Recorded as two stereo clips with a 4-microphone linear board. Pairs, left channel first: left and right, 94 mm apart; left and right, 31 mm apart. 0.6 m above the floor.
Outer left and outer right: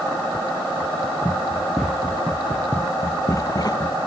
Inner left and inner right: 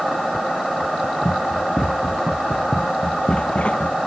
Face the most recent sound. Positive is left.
turn(degrees=50)  # may be behind; listen again after turning